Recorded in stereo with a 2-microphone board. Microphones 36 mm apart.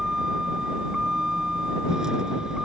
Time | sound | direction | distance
0.0 | a vehicle | 20° right (ahead or behind) | ?